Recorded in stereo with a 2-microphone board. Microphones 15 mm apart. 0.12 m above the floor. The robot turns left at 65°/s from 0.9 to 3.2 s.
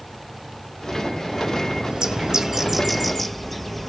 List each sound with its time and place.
1.9 s a bird: 100° right, 0.8 m; by 3.9 s 175° left, 0.8 m